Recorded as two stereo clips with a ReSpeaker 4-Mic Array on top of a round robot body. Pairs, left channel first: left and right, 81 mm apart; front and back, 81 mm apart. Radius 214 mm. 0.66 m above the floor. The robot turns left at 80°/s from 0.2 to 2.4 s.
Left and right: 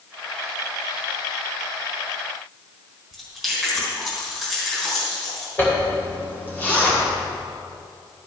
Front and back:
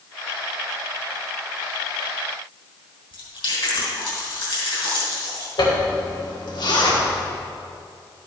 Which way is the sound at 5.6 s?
25° left.